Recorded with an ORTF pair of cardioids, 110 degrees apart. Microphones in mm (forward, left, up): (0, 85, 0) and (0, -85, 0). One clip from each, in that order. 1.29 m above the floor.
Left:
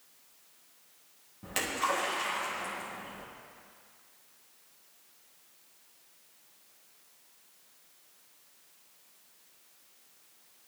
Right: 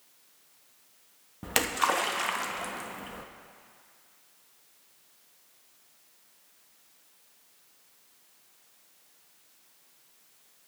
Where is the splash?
55° right, 1.3 m.